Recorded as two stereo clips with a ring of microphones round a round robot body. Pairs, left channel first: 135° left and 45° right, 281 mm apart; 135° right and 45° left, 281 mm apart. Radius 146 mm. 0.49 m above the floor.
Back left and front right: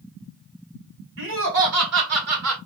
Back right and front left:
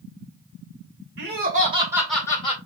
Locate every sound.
1.2 s laughter: straight ahead, 2 m; by 2.6 s 70° right, 1.9 m